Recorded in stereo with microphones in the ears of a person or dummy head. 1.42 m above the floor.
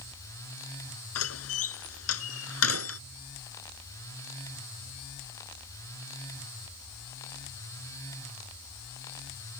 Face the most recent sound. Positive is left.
turn(degrees=90)